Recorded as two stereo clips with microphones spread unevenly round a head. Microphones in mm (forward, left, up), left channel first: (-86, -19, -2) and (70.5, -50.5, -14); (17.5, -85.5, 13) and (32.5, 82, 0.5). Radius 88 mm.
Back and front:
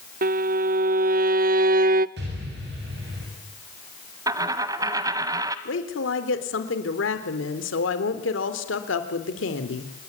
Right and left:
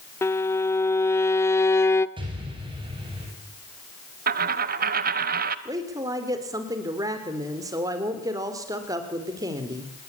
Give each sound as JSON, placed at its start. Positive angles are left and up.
{"t": 0.2, "sound": "a violin", "azimuth_deg": -25, "distance_m": 0.9}
{"t": 2.2, "sound": "an explosion", "azimuth_deg": 25, "distance_m": 8.0}
{"t": 4.3, "sound": "a dropped coin", "azimuth_deg": 60, "distance_m": 1.3}
{"t": 5.7, "sound": "a woman speaking", "azimuth_deg": 155, "distance_m": 3.5}